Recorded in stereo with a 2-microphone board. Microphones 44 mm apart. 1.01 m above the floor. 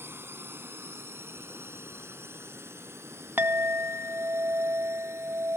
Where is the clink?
55° right (ahead or behind).